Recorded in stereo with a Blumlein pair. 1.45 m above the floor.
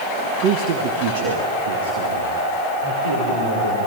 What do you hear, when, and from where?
0.4 s a man speaking: 35° right, 1.2 m; by 3.9 s 70° right, 6 m